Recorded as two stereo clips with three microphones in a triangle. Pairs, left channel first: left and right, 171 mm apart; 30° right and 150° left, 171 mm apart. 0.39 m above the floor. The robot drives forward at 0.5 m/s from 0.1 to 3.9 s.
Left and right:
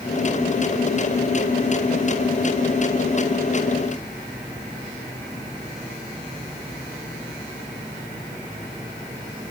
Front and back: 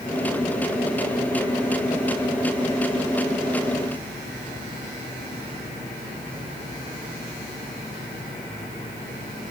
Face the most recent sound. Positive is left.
No sound to turn to.